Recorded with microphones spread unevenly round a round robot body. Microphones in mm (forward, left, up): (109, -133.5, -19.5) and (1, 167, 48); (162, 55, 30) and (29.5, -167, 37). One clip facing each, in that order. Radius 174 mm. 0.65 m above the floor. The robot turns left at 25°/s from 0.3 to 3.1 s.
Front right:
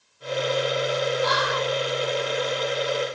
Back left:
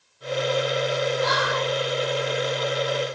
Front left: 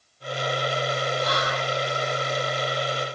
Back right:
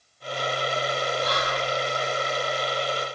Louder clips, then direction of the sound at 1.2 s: Even, even; 60° left.